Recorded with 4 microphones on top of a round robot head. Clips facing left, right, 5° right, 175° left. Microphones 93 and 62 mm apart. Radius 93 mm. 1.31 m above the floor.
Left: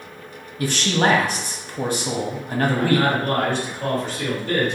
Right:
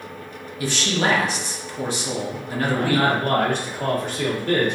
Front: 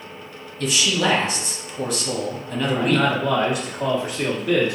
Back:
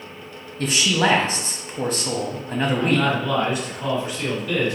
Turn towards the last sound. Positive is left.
turn(degrees=-45)